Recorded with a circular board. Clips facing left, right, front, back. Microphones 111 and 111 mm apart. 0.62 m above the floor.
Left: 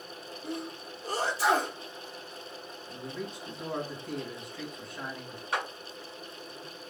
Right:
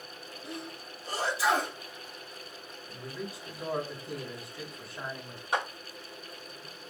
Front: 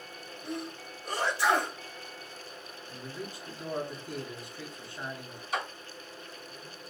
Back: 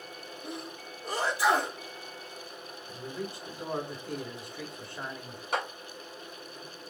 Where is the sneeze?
120° left, 1.5 m.